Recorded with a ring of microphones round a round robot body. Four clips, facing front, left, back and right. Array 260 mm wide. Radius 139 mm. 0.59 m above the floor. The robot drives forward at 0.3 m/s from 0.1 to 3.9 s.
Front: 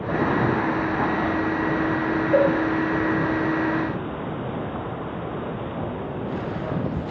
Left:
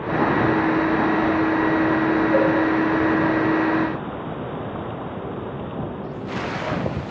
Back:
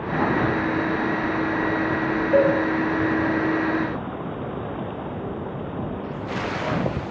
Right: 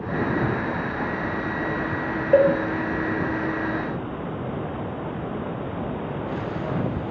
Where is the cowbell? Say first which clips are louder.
Right 5 dB, back 1 dB; 90° right, 0.8 m; by 2.5 s 95° right, 0.8 m.